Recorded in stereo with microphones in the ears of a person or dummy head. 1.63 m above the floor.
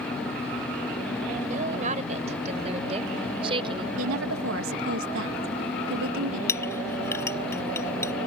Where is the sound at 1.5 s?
45° right (ahead or behind); by 3.9 s 30° right (ahead or behind).